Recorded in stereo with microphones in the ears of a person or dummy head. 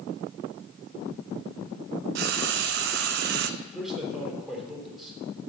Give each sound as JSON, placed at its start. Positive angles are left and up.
{"t": 2.1, "sound": "frying", "side_deg": -55, "distance_m": 0.6}
{"t": 3.6, "sound": "a man speaking", "side_deg": -5, "distance_m": 3.0}